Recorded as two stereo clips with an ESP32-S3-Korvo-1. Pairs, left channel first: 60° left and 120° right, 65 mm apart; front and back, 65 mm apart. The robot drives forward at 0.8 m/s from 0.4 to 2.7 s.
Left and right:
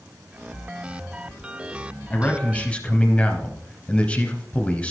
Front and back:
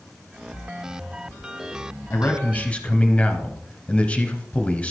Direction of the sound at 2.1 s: 15° left.